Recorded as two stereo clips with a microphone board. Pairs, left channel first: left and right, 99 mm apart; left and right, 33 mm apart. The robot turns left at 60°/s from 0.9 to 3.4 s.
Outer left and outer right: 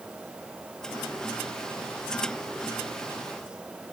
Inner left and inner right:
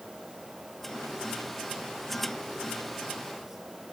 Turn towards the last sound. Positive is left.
No sound to turn to.